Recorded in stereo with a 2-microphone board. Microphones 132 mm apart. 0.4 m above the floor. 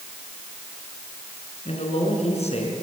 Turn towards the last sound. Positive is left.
turn(degrees=50)  # may be behind; listen again after turning